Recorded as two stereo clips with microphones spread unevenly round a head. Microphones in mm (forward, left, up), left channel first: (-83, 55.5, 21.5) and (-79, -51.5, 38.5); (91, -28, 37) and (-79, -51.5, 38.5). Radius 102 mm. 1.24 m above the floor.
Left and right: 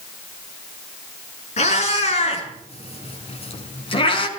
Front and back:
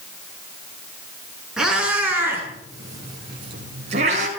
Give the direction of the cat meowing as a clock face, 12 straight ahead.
9 o'clock.